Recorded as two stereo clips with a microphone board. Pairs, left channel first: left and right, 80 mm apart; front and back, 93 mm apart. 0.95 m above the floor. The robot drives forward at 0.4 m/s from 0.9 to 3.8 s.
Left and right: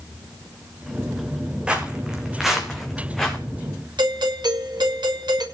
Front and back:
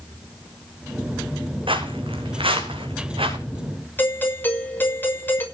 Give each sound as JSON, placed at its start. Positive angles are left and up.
{"t": 1.7, "sound": "footsteps", "azimuth_deg": -165, "distance_m": 3.0}
{"t": 4.0, "sound": "a doorbell", "azimuth_deg": -70, "distance_m": 6.0}